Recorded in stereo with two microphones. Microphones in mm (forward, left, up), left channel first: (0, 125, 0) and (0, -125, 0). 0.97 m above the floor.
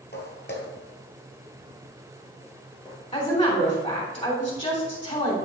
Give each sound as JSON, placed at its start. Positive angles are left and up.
{"t": 0.1, "sound": "footsteps", "side_deg": 45, "distance_m": 1.4}
{"t": 3.1, "sound": "a woman speaking", "side_deg": 30, "distance_m": 3.0}